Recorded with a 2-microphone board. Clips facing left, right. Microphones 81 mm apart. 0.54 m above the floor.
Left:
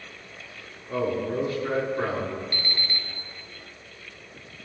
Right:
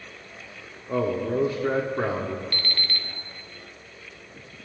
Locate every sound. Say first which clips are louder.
0.9 s a man speaking: right 2 dB; 30° right (ahead or behind), 1.3 m
2.5 s an alarm clock: even; 20° left (ahead or behind), 0.9 m